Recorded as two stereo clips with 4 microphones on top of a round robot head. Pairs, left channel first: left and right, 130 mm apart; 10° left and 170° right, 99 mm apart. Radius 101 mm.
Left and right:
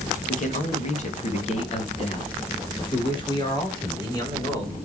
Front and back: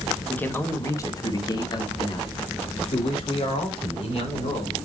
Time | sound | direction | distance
0.3 | a man speaking | 85° left | 2 m